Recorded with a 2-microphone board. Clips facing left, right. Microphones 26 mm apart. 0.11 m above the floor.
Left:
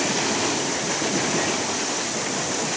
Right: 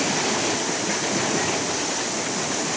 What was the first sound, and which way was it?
Only background noise.